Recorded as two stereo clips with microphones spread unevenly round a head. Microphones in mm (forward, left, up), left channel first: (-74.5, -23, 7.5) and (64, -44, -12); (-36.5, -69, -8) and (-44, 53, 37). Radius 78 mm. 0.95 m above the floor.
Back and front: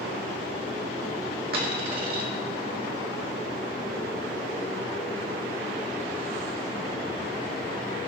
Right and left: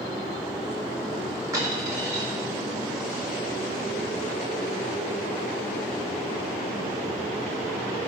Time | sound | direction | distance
1.5 | a dropped coin | 30° left | 1.2 m